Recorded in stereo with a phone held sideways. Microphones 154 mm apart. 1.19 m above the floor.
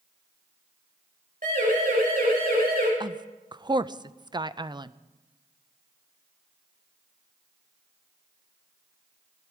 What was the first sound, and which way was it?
A siren, 60° right (ahead or behind).